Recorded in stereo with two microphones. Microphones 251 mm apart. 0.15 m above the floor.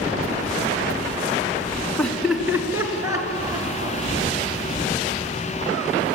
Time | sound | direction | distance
2.0 | laughter | 5° left (ahead or behind) | 1.5 m